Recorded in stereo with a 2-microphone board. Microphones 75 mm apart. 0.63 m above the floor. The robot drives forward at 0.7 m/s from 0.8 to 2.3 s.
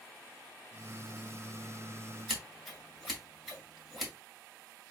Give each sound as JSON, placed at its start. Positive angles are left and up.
{"t": 2.3, "sound": "scissors", "side_deg": 0, "distance_m": 2.0}